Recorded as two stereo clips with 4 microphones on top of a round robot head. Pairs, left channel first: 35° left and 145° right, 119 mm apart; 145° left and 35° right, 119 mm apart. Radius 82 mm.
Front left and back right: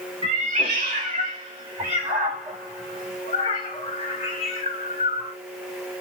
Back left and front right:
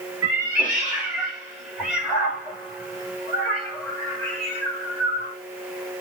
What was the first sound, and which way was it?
A cat meowing, 110° right.